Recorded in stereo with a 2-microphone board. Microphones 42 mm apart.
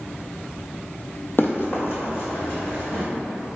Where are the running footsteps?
60° left (ahead or behind), 0.7 m; by 3.0 s 70° left (ahead or behind), 2.0 m.